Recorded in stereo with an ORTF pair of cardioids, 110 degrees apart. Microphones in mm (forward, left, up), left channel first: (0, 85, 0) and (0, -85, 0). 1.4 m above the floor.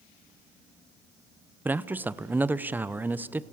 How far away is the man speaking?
About 0.6 m.